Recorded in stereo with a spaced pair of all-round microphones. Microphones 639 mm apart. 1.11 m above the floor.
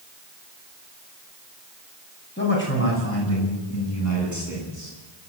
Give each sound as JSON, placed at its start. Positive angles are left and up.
{"t": 2.4, "sound": "a man speaking", "side_deg": 15, "distance_m": 9.0}